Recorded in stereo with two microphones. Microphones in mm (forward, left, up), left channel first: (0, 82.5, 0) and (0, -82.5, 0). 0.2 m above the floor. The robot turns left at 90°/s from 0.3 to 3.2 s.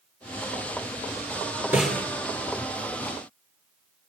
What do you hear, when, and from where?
1.7 s a snare drum: 10° right (ahead or behind), 4 m; by 2.0 s 15° left (ahead or behind), 4 m